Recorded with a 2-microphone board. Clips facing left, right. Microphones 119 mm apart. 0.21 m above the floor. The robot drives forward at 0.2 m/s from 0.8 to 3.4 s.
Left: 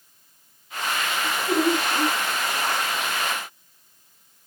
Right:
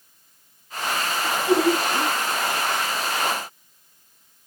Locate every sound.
1.2 s laughter: 20° right (ahead or behind), 1.5 m